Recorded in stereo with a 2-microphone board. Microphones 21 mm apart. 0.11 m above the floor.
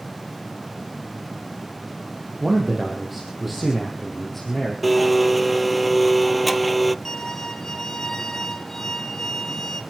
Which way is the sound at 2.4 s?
25° right (ahead or behind).